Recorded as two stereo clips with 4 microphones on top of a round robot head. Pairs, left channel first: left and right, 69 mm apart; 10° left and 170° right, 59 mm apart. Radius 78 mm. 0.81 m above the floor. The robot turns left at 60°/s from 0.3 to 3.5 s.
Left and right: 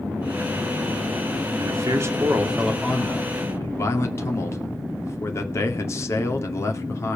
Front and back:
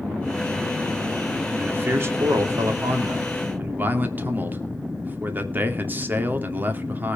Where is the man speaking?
110° right, 2.5 m; by 7.2 s 135° left, 2.5 m.